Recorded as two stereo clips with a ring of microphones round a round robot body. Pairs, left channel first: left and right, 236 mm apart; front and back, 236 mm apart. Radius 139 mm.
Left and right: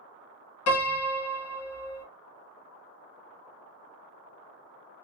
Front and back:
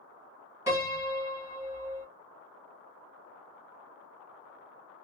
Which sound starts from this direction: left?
A piano, at 0.7 s.